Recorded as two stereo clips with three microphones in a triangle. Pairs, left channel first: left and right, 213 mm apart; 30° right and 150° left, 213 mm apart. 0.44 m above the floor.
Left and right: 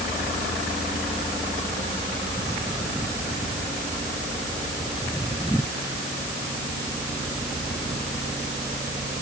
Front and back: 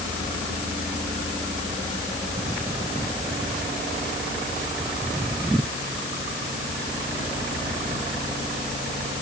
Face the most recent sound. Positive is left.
No sound to turn to.